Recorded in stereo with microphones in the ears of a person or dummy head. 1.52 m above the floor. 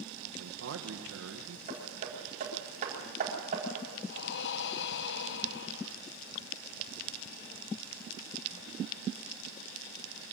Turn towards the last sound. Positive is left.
turn(degrees=60)  # may be behind; listen again after turning